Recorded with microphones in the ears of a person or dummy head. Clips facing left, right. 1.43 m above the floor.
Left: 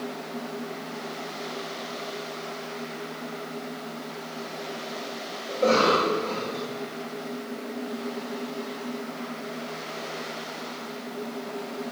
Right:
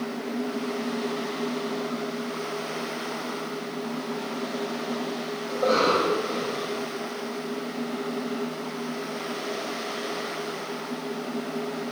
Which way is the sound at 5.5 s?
30° left (ahead or behind).